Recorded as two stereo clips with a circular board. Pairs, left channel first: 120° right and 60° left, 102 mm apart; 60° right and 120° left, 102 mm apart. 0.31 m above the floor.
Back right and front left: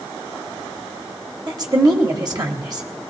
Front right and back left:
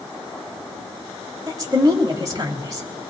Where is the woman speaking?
80° left, 1.4 m.